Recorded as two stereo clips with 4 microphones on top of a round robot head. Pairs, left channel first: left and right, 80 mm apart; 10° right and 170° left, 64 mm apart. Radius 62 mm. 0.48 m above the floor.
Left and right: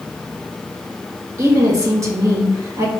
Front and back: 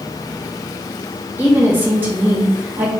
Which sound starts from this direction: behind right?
A woman speaking, at 1.4 s.